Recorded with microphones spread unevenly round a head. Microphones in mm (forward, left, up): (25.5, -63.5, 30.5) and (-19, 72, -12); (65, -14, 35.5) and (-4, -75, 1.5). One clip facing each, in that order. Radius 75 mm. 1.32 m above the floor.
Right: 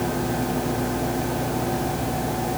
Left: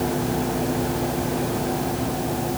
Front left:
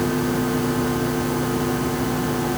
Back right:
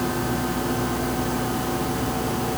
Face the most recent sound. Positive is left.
No sound to turn to.